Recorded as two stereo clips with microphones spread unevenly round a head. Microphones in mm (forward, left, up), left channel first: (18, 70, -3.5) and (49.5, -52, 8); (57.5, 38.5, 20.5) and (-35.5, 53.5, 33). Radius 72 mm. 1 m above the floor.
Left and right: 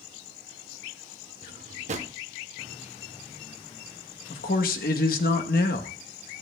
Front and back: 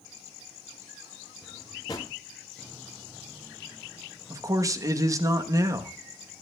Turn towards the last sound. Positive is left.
turn(degrees=115)